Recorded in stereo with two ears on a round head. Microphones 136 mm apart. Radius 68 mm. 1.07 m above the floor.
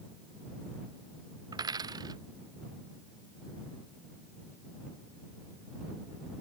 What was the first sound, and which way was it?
A dropped coin, 25° right (ahead or behind).